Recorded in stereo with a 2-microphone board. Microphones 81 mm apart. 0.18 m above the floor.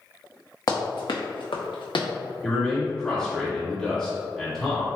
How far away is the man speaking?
About 1.3 m.